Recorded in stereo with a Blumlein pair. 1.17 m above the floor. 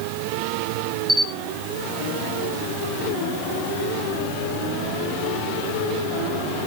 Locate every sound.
1.1 s a camera shutter: straight ahead, 0.9 m